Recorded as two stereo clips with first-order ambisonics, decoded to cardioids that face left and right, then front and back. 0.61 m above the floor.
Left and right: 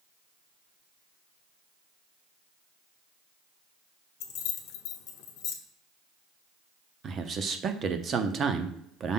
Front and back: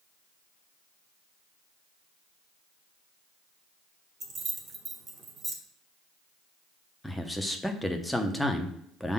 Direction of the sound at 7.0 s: 90° right.